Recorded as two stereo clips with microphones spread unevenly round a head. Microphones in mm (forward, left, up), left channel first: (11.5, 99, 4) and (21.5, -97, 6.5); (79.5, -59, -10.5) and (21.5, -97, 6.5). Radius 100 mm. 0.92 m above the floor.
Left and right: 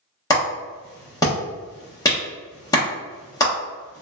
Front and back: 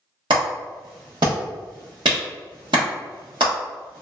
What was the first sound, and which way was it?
A clap, 165° left.